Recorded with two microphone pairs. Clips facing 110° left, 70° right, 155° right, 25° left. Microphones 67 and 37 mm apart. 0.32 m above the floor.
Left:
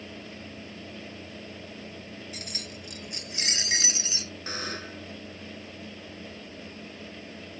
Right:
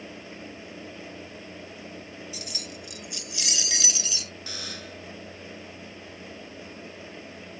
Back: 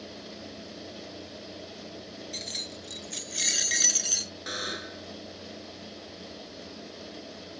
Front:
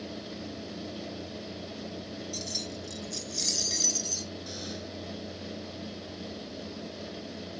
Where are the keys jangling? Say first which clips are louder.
Right 1 dB, even; 155° left; by 4.3 s 170° left.